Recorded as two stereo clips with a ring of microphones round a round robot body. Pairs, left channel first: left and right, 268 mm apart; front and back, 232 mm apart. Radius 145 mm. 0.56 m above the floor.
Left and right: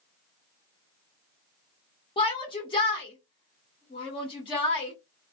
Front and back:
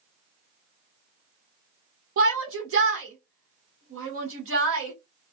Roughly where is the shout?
Behind.